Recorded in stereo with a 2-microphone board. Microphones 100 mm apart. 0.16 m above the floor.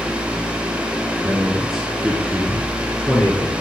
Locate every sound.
1.2 s a man speaking: 15° right (ahead or behind), 1.9 m; by 3.5 s 25° left (ahead or behind), 3 m